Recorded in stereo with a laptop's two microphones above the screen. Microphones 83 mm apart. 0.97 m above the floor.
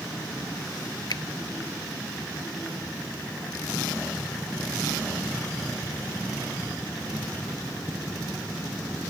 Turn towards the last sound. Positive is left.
turn(degrees=60)  # may be behind; listen again after turning